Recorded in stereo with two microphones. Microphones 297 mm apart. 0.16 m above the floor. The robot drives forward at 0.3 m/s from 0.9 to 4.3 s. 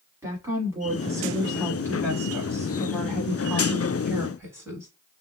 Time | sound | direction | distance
0.2 | a woman speaking | 10° right (ahead or behind) | 1.3 m